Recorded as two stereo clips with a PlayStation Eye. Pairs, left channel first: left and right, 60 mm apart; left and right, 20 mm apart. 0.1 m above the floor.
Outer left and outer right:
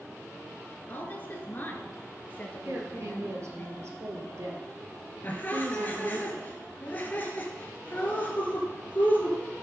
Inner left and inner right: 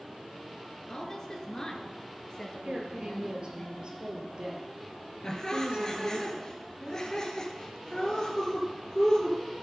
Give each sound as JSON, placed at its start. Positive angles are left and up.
{"t": 0.9, "sound": "a woman speaking", "side_deg": 35, "distance_m": 1.3}
{"t": 2.6, "sound": "a woman speaking", "side_deg": -55, "distance_m": 2.0}
{"t": 5.2, "sound": "laughter", "side_deg": 30, "distance_m": 1.7}